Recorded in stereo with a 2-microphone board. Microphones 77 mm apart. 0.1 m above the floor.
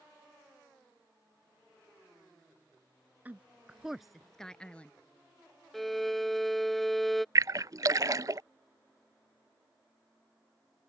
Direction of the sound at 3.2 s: 20° right (ahead or behind).